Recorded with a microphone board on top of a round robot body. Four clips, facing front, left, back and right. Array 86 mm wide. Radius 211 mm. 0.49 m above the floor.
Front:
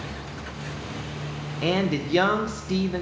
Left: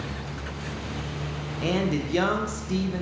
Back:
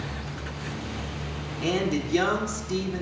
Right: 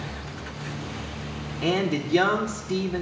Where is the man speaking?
10° right, 1.2 m.